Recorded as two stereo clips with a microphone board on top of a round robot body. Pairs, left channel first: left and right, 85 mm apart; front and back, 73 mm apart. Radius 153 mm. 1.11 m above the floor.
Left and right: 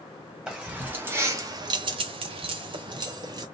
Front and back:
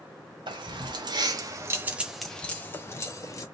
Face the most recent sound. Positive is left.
turn(degrees=-50)